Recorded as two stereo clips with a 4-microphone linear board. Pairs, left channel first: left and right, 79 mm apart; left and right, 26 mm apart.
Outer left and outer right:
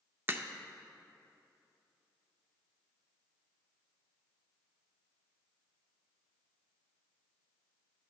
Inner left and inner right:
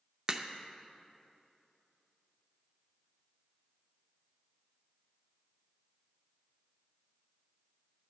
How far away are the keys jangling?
No keys jangling in this recording.